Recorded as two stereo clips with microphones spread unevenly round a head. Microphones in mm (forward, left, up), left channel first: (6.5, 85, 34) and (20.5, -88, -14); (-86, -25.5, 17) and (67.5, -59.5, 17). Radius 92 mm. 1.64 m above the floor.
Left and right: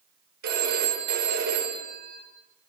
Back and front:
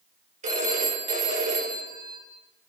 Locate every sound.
0.4 s a phone ringing: 50° right, 5 m